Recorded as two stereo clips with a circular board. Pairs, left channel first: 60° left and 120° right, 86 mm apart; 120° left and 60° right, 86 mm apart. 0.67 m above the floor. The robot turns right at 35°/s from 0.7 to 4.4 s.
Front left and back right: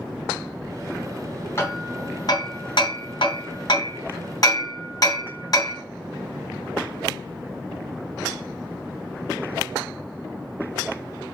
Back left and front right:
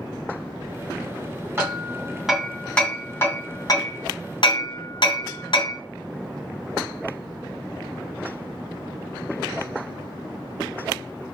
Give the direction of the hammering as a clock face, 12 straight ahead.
12 o'clock.